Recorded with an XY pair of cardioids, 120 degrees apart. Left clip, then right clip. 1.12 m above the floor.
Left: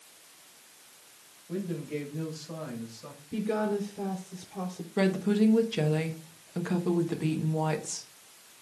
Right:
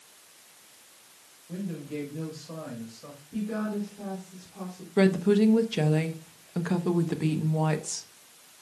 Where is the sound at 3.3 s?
60° left, 3.5 m.